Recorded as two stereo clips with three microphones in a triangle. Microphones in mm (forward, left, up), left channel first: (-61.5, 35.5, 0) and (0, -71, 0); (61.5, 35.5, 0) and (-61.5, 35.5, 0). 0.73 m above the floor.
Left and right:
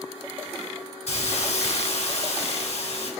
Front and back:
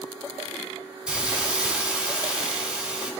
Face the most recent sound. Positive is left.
turn(degrees=100)